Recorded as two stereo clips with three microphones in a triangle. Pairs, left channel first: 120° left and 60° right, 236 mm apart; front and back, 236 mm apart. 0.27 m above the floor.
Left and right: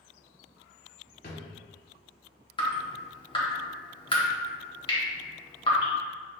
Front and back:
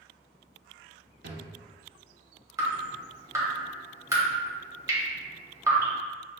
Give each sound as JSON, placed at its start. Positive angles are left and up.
{"t": 1.2, "sound": "a drawer", "azimuth_deg": 155, "distance_m": 0.9}
{"t": 2.6, "sound": "dripping", "azimuth_deg": 125, "distance_m": 1.2}